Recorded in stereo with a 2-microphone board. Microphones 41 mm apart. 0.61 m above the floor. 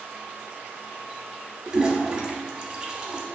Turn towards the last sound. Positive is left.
turn(degrees=-20)  # may be behind; listen again after turning